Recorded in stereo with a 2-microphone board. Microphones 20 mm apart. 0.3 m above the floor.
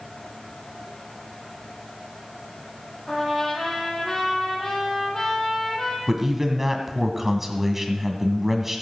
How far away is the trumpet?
About 3.5 m.